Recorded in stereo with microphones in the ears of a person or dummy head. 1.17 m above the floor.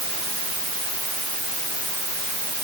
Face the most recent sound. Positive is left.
No sound to turn to.